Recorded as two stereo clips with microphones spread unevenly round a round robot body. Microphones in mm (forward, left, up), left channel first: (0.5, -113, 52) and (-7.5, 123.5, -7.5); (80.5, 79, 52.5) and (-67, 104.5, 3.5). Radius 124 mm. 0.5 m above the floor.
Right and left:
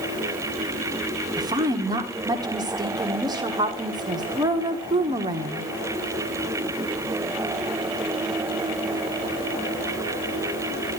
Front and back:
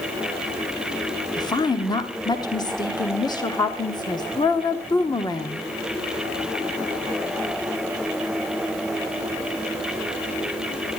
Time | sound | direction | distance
1.4 | a woman speaking | 65° left | 1.2 m